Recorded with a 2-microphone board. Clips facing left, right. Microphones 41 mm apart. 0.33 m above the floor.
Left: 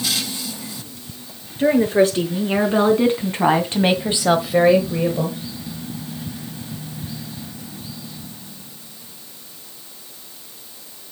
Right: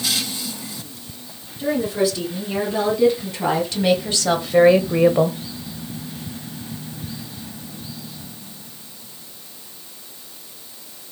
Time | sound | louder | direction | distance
1.6 | a woman speaking | left 5 dB | 50° left (ahead or behind) | 4.5 m